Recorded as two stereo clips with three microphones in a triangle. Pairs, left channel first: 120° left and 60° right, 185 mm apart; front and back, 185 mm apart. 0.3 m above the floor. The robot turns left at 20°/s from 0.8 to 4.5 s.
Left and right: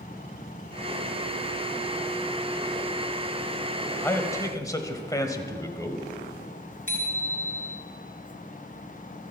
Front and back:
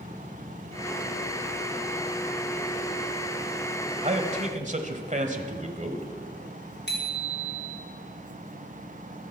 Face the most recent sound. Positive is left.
turn(degrees=-20)